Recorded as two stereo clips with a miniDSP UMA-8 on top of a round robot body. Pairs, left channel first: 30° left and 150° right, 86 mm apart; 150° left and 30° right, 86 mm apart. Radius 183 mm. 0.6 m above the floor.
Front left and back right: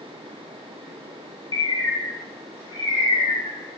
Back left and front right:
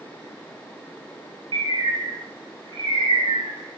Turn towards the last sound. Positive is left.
turn(degrees=-10)